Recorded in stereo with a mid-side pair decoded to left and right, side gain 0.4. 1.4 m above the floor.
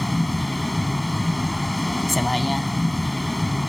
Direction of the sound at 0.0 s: 10° left.